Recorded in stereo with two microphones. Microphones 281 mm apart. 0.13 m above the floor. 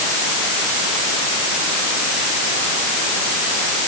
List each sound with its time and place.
Only background noise.